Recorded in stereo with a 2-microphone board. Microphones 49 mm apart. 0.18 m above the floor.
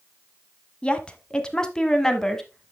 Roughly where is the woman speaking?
Left.